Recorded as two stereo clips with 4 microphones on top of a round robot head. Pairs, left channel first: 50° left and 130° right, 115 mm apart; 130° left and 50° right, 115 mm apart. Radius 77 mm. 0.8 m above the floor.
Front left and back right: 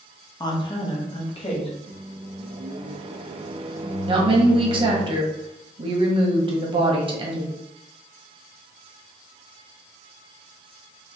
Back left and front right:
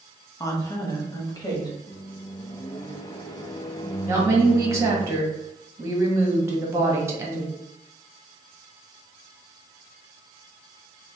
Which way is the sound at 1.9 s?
170° right.